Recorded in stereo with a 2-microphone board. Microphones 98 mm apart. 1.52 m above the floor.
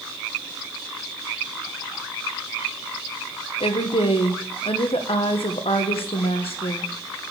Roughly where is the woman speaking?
Left.